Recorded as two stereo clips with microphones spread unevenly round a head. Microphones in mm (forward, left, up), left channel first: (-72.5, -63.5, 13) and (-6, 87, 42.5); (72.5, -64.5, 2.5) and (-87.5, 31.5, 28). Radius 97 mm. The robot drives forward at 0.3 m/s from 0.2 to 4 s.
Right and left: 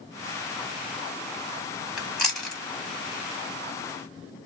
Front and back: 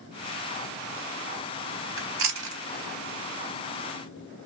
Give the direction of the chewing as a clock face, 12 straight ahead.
7 o'clock.